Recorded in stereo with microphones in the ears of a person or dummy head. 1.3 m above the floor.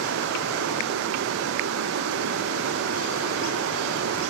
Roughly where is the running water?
Right.